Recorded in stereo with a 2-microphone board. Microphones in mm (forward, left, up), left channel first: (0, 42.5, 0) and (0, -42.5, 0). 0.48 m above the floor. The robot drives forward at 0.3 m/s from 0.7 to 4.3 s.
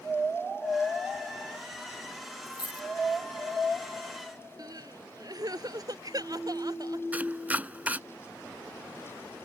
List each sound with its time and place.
2.5 s a dropped coin: 65° left (ahead or behind); by 2.9 s 60° left (ahead or behind)
4.6 s crying: 50° right (ahead or behind)
7.1 s chopping: 20° right (ahead or behind)